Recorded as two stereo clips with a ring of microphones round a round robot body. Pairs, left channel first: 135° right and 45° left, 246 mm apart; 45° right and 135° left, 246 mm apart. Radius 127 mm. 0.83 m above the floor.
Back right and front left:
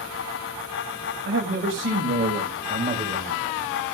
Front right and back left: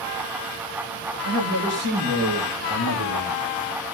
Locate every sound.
1.2 s a man speaking: 95° left, 5 m; by 3.5 s 125° left, 5 m